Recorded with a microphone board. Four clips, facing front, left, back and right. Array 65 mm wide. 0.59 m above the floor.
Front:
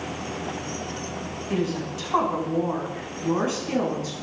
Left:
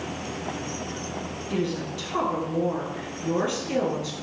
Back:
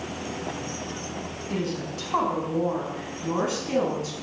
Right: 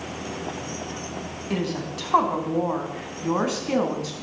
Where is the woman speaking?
80° right, 5 m; by 4.1 s 90° right, 6.5 m.